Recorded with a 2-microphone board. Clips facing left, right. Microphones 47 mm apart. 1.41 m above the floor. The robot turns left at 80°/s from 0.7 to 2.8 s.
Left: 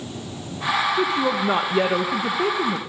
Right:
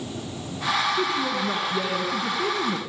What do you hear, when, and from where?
1.0 s a woman speaking: 155° left, 1.7 m; by 2.8 s 10° left, 1.7 m